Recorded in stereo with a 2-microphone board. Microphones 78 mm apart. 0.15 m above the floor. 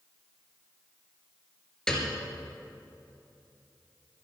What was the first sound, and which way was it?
A piano, 10° left (ahead or behind).